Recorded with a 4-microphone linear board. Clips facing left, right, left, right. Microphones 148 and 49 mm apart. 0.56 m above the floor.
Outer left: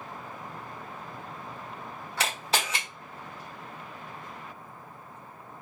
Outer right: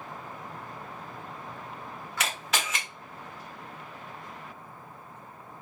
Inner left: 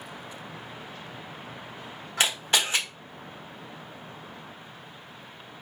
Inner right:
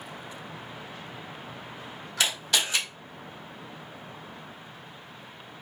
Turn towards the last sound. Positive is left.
turn(degrees=30)  # may be behind; listen again after turning